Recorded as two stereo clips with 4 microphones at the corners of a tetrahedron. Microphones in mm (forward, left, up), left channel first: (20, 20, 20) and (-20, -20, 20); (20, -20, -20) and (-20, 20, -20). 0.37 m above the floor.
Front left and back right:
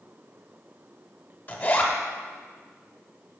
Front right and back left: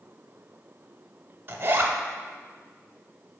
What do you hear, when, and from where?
1.5 s a zipper: 95° left, 0.8 m